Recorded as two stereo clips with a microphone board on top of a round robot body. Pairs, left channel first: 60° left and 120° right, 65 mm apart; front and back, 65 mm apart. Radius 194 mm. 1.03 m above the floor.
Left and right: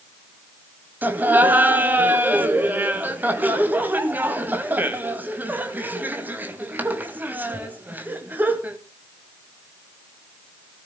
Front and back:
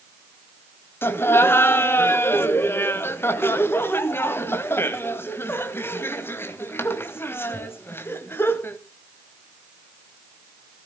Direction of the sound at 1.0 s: 55° right.